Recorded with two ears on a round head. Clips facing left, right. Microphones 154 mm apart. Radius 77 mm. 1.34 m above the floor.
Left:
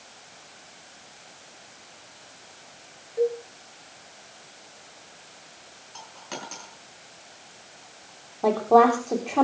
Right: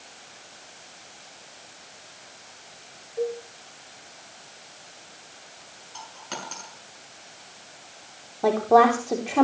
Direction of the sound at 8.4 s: 5° right (ahead or behind).